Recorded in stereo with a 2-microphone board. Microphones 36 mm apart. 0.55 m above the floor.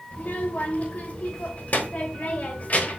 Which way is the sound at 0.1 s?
45° left (ahead or behind).